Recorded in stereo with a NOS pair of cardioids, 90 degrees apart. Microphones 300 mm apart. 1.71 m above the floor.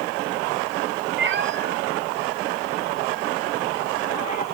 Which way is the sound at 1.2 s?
40° right.